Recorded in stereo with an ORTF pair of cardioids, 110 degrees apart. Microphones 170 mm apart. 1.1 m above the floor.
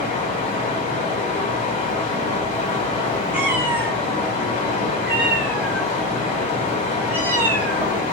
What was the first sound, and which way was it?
Running water, 55° left.